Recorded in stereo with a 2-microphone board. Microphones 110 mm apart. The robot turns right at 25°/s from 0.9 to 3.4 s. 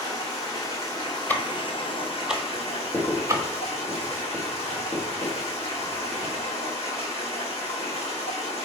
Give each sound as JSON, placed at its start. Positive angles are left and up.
{"t": 0.0, "sound": "running water", "azimuth_deg": 35, "distance_m": 1.4}
{"t": 1.3, "sound": "ticking", "side_deg": 15, "distance_m": 0.6}
{"t": 2.9, "sound": "writing", "side_deg": 15, "distance_m": 1.9}